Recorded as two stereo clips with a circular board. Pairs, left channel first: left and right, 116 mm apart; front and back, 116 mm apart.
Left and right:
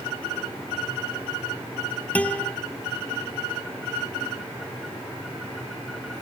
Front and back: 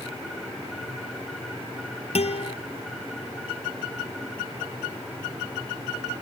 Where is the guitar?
15° left, 0.8 m.